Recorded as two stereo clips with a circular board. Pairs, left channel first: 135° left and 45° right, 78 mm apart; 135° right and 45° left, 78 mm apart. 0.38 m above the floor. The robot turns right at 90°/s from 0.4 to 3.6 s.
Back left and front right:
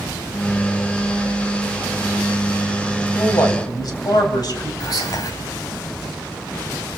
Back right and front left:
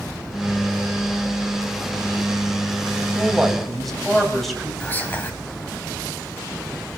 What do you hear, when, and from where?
3.1 s a man speaking: 95° left, 2.5 m; by 4.7 s 135° left, 2.5 m
4.8 s whispering: 160° left, 2.0 m